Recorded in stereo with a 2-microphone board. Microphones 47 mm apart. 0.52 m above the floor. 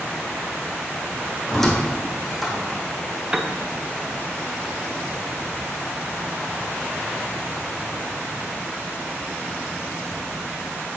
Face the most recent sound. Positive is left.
turn(degrees=-15)  # may be behind; listen again after turning